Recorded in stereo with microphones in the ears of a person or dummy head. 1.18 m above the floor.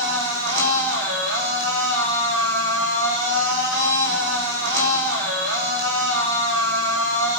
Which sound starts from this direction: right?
A machine running, at 0.0 s.